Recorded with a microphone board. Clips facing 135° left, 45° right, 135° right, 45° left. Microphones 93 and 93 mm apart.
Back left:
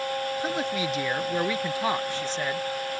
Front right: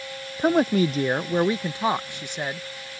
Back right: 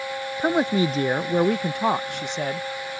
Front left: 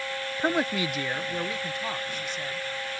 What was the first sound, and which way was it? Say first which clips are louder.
A woman speaking: front right 8 dB, back right 6 dB; 55° right.